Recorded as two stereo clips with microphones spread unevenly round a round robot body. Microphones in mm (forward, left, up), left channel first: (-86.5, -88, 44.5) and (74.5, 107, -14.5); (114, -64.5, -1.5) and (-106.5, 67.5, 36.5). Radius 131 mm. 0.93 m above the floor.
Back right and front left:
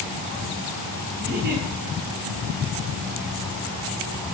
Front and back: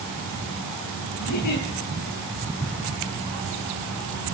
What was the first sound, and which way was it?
A giggle, 10° right.